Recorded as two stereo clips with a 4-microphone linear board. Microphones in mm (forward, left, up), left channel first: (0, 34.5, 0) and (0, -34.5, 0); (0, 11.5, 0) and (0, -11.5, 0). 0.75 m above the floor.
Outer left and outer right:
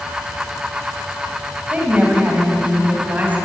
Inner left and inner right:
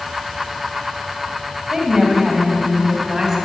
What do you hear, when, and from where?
1.7 s a woman speaking: 20° right (ahead or behind), 4.5 m